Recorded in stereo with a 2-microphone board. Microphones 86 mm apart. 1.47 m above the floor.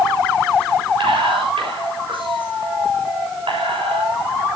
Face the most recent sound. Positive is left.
turn(degrees=-90)